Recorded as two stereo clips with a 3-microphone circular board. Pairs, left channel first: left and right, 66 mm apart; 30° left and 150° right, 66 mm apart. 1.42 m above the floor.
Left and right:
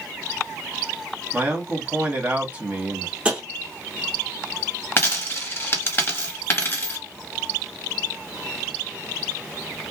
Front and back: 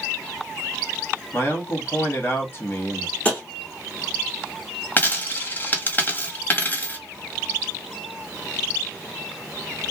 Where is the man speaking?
25° right, 1.2 m.